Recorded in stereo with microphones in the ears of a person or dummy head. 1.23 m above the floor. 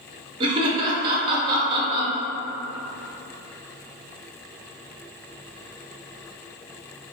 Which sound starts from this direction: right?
Laughter, at 0.4 s.